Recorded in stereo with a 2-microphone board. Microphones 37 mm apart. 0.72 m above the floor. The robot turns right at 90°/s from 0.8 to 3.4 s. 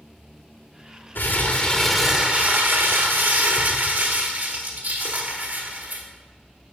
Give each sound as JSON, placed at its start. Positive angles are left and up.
{"t": 1.1, "sound": "crumpling", "azimuth_deg": 105, "distance_m": 0.8}